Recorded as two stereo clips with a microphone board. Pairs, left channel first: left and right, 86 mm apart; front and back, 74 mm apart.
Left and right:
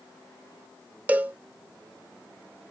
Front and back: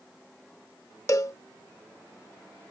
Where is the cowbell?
25° right.